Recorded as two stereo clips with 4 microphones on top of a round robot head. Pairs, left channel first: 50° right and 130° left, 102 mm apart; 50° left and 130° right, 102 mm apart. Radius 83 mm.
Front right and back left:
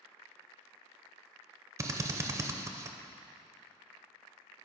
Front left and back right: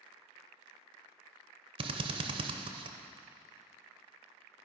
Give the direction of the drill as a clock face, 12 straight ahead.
6 o'clock.